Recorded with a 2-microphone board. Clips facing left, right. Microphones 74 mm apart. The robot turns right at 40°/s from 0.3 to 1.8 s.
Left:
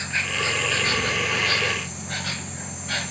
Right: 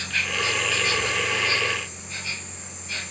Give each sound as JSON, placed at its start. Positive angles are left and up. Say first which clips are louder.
{"t": 0.0, "sound": "an insect", "louder": "left 1 dB", "azimuth_deg": 25, "distance_m": 0.9}